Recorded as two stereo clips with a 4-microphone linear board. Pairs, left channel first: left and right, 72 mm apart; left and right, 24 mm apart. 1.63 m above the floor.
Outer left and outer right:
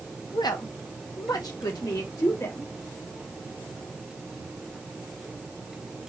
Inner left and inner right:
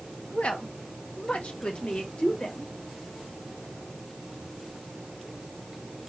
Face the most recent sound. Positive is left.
turn(degrees=45)  # may be behind; listen again after turning